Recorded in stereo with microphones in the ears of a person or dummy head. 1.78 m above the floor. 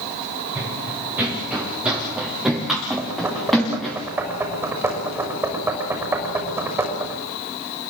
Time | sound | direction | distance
0.6 | running footsteps | 15° right (ahead or behind) | 7 m
3.0 | knocking | 10° right (ahead or behind) | 6 m